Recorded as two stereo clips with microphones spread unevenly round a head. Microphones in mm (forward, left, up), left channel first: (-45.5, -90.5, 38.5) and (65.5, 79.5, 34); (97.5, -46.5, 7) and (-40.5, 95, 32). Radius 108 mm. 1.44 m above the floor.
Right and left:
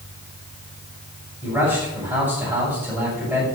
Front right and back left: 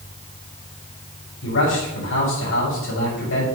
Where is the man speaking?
20° right, 6 m.